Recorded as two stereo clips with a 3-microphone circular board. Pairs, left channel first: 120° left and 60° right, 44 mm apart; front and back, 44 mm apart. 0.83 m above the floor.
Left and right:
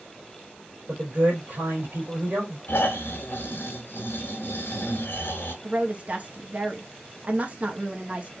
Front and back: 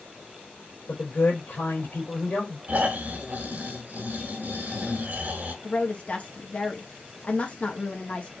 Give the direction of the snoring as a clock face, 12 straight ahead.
7 o'clock.